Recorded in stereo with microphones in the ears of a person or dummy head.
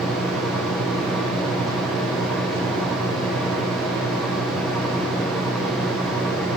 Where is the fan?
Centre (ahead or behind), 1.3 m.